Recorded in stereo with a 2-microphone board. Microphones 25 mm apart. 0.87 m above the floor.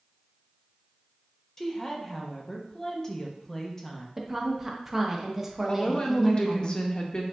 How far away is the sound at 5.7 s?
About 0.6 m.